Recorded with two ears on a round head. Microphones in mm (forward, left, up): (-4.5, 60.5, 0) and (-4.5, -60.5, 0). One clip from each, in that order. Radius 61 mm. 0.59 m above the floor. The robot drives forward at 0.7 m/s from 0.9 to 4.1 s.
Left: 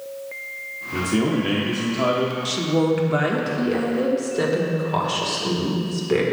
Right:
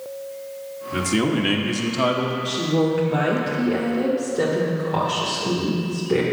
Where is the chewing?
No chewing in this recording.